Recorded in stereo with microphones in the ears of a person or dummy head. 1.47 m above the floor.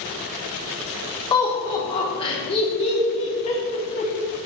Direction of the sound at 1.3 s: 25° left (ahead or behind).